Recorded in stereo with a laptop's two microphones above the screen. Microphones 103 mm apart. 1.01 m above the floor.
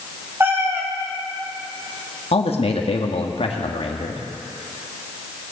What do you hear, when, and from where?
0.4 s a cat meowing: 20° right (ahead or behind), 1.6 m
2.3 s a man speaking: 65° left (ahead or behind), 1.4 m